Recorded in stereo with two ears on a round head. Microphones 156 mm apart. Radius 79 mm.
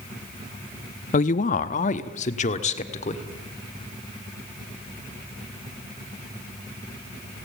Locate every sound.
1.1 s a woman speaking: 45° left (ahead or behind), 0.7 m; by 3.3 s 40° left (ahead or behind), 2.0 m